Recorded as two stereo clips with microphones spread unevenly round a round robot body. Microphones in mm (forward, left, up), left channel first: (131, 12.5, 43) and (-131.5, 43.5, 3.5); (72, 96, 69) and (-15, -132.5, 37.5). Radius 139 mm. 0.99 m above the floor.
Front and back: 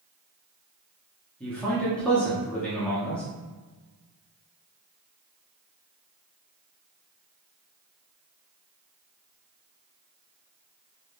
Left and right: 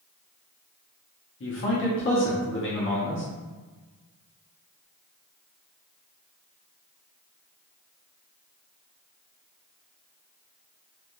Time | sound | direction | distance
1.4 | a man speaking | 85° left | 0.8 m